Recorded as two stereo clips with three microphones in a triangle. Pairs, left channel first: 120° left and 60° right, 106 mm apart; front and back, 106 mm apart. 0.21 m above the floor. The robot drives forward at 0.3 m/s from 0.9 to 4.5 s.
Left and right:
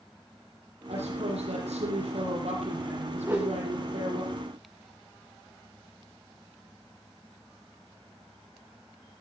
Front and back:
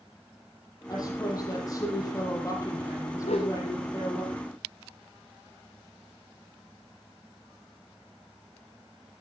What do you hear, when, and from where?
0.9 s a woman speaking: 55° right, 8.5 m; by 4.2 s 60° right, 8 m
3.2 s a whoosh: 10° left, 4 m